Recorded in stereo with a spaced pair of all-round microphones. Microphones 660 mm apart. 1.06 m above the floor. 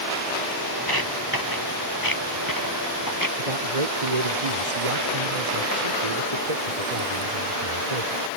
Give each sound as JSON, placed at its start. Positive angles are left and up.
{"t": 0.8, "sound": "footsteps", "side_deg": 30}
{"t": 3.4, "sound": "a man speaking", "side_deg": -65}